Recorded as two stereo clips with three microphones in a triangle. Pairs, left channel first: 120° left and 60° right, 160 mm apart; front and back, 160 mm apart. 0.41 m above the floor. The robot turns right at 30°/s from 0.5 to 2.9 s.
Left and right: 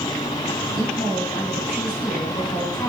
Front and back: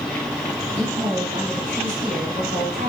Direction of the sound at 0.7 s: 115° left.